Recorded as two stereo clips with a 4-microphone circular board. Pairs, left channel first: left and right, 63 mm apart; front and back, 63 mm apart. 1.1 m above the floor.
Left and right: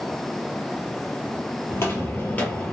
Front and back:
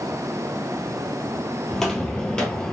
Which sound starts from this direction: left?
Footsteps, at 1.7 s.